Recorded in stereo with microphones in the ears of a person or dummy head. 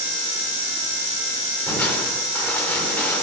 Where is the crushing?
10° left (ahead or behind), 4.5 m.